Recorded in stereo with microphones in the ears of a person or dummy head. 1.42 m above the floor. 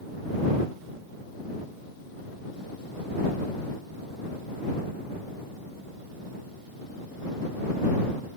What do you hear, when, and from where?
Only background noise.